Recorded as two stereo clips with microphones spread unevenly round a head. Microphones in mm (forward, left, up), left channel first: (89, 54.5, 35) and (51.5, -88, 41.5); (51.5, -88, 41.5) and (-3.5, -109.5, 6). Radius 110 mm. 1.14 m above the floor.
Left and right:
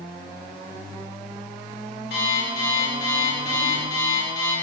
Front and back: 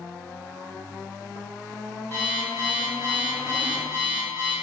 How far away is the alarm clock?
About 4 m.